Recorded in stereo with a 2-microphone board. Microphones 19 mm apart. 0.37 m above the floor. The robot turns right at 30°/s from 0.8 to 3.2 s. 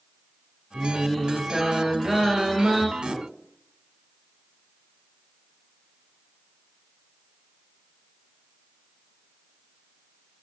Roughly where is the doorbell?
I don't hear a doorbell.